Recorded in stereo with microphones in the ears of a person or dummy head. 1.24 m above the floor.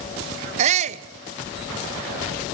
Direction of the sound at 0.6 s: 40° right (ahead or behind).